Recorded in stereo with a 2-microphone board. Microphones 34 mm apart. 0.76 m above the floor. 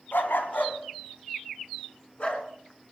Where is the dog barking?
75° left (ahead or behind), 1.6 m; by 2.5 s 35° left (ahead or behind), 2.5 m.